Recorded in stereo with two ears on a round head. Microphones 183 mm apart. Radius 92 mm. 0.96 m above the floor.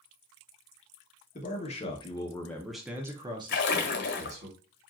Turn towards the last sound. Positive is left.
turn(degrees=65)  # may be behind; listen again after turning